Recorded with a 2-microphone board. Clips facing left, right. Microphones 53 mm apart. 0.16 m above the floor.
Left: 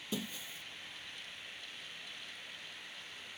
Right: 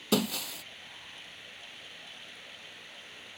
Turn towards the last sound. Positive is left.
turn(degrees=-75)  # may be behind; listen again after turning